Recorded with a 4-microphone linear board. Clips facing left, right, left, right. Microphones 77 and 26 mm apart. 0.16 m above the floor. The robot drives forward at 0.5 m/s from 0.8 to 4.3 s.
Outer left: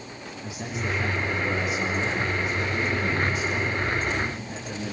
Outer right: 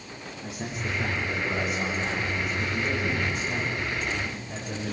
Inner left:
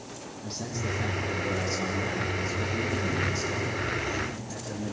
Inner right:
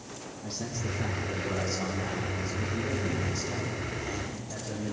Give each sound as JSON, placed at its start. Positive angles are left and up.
{"t": 0.4, "sound": "a man speaking", "side_deg": 5, "distance_m": 6.5}